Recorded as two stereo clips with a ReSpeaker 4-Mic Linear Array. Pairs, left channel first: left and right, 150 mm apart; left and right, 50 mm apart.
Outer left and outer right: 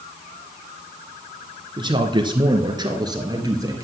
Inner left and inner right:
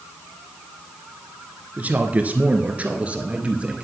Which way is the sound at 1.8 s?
30° right (ahead or behind).